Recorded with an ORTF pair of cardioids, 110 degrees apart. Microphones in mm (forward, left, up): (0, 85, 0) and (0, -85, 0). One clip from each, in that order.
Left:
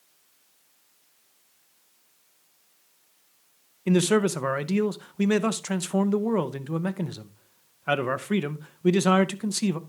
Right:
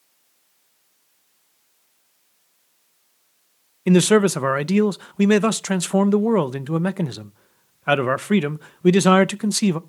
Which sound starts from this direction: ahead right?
A man speaking, at 3.9 s.